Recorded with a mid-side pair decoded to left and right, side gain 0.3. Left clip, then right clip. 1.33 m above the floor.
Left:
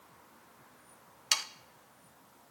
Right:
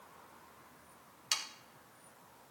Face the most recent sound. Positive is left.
turn(degrees=60)